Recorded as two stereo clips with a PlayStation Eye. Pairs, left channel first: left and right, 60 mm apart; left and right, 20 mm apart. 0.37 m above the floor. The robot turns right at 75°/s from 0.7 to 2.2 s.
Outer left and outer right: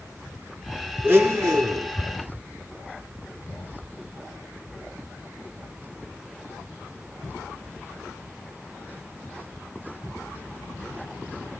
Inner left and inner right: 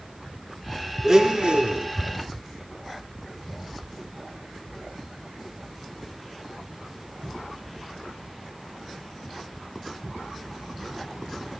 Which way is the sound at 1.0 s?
150° right.